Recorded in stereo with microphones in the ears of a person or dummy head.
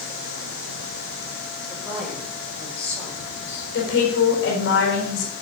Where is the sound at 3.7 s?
70° left (ahead or behind), 4 m.